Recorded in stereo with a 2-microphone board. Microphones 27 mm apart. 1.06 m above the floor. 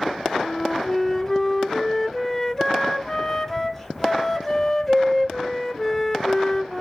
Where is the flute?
10° left (ahead or behind), 0.6 m.